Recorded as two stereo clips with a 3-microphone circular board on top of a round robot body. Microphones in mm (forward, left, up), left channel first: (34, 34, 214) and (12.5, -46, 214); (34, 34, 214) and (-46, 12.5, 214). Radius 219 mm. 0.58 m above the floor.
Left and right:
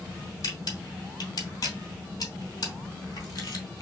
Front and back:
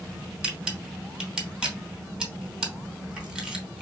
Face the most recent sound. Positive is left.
turn(degrees=115)